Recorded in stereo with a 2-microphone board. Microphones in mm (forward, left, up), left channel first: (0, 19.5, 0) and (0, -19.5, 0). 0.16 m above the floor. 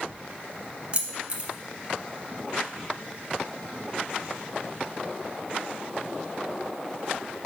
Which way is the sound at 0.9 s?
30° right (ahead or behind).